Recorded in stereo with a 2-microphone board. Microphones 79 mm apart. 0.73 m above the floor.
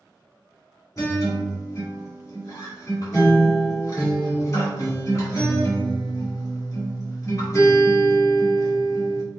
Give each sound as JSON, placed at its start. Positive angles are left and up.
{"t": 1.0, "sound": "a guitar", "side_deg": 40, "distance_m": 1.3}